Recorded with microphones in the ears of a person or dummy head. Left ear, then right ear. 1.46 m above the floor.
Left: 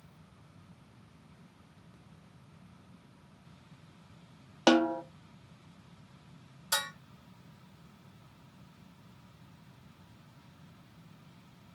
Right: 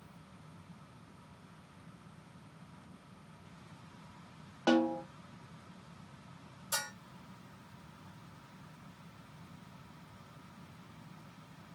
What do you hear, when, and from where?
4.7 s a snare drum: 85° left, 0.6 m
6.7 s dishes clattering: 80° left, 2.5 m